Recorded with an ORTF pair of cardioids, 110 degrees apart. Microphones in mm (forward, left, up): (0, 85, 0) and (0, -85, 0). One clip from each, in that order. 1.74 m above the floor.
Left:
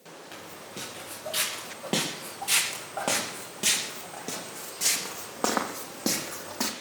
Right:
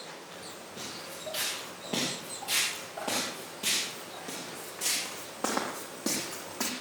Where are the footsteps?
70° left, 6.5 m; by 6.7 s 30° left, 3 m.